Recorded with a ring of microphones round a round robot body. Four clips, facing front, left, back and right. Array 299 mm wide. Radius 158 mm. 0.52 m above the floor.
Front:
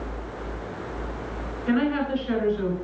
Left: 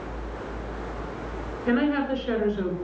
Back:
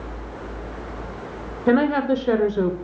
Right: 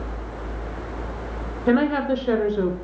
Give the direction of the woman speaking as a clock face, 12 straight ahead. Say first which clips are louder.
Right 4 dB, back 5 dB; 5 o'clock.